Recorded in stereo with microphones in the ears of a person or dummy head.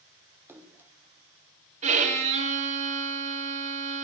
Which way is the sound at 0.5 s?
5° right (ahead or behind).